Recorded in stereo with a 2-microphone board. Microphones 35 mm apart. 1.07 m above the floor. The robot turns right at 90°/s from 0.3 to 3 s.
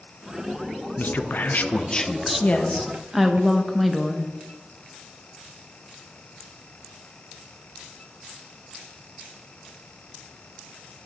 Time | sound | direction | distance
1.0 | a man speaking | 65° left | 0.6 m
2.4 | a woman speaking | 130° left | 1.2 m